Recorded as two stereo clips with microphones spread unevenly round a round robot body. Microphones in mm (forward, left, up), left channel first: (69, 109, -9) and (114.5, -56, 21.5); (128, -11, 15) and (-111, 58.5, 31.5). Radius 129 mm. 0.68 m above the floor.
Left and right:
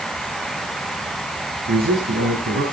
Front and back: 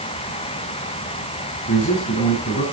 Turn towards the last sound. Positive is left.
turn(degrees=-70)